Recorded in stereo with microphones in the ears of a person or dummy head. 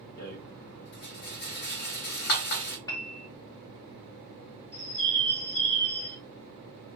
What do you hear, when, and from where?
0.2 s a rattle: 65° left (ahead or behind), 1.7 m
2.9 s a piano: 25° left (ahead or behind), 0.6 m
4.7 s a bird: 25° right (ahead or behind), 2.5 m